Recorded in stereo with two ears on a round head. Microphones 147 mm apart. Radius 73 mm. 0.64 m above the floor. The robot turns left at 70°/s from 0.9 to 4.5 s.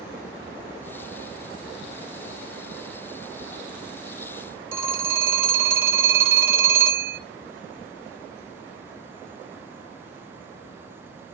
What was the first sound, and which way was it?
A phone ringing, 15° right (ahead or behind).